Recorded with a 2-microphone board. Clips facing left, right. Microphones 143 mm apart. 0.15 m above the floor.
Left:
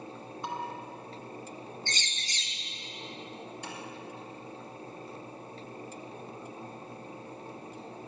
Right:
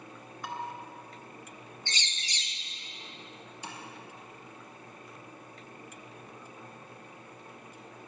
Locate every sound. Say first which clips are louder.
0.4 s dishes clattering: left 2 dB; 25° left (ahead or behind), 1.4 m
1.9 s a bird: left 2 dB; 55° left (ahead or behind), 1.3 m
3.6 s tapping: right 1 dB; 60° left (ahead or behind), 2.5 m